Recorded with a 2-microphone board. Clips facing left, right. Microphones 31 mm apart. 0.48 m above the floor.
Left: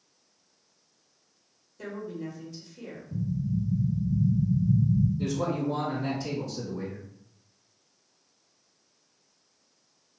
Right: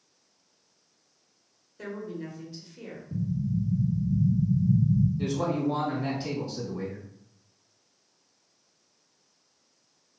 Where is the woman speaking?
25° right (ahead or behind), 1.4 m.